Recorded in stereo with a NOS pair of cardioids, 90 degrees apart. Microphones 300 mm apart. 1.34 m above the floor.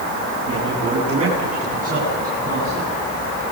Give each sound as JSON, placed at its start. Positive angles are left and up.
{"t": 0.5, "sound": "a man speaking", "azimuth_deg": -60, "distance_m": 9.5}